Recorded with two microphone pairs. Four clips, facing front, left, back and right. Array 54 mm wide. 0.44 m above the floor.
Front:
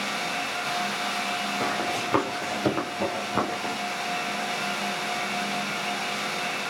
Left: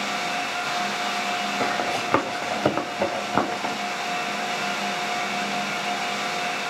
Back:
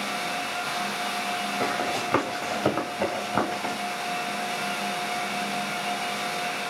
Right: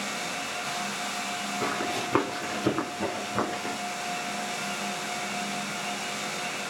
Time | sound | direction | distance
1.6 | running footsteps | 85° left | 3.5 m